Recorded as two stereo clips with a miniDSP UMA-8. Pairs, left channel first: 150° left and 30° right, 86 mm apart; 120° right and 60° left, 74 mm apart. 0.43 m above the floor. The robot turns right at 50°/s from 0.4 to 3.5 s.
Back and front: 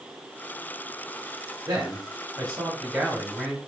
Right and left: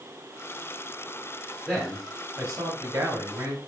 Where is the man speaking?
20° right, 1.5 m; by 3.6 s 75° left, 1.5 m.